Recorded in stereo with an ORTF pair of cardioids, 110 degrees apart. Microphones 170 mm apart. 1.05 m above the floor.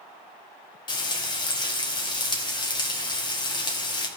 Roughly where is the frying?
Ahead left.